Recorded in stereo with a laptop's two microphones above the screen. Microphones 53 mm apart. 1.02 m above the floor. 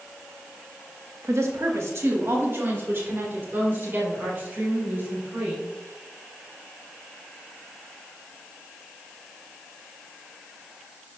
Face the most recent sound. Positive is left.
turn(degrees=-30)  # may be behind; listen again after turning